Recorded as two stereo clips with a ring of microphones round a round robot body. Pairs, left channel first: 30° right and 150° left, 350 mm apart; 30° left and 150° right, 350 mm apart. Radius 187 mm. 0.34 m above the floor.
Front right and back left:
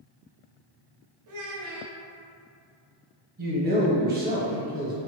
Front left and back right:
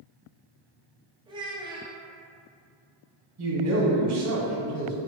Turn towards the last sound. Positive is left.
turn(degrees=-160)